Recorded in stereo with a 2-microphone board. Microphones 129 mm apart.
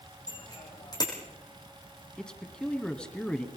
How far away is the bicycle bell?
About 6 m.